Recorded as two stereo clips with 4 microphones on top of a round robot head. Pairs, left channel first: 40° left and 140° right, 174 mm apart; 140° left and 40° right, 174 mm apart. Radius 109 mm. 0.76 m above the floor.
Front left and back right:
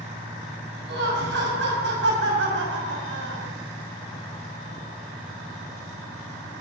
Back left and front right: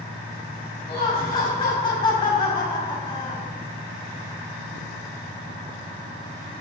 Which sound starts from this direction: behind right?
Laughter, at 0.9 s.